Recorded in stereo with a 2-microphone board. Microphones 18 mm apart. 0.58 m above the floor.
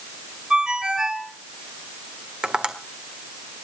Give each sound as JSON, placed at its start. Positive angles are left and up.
{"t": 0.5, "sound": "a ringtone", "side_deg": -55, "distance_m": 3.0}
{"t": 2.4, "sound": "tapping", "side_deg": -60, "distance_m": 1.7}